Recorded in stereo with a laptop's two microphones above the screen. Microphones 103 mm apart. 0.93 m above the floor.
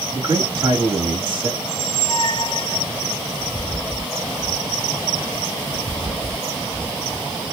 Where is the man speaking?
45° right (ahead or behind), 1.6 m.